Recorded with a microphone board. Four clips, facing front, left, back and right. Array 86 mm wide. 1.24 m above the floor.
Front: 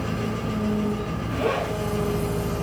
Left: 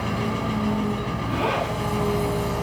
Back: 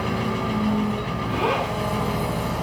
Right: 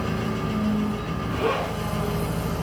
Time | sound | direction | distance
0.0 | an engine running | 145° left | 3.5 m
1.3 | a zipper | 150° left | 8.5 m